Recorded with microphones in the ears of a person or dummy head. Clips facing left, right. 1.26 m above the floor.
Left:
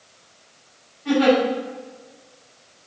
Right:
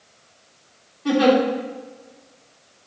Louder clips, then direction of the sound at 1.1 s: Right 1 dB; 65° right (ahead or behind).